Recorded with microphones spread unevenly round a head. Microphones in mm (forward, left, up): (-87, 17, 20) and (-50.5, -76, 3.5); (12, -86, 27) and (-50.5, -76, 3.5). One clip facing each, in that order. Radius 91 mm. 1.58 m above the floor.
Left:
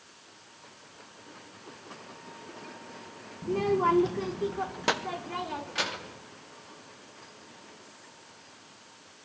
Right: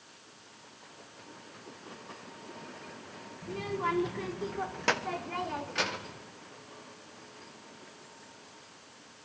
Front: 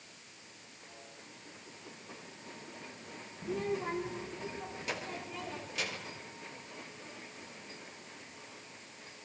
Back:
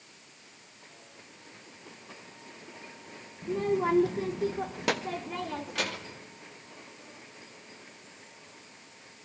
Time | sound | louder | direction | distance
3.4 | a child speaking | left 8 dB, back 7 dB | 80° left | 0.8 m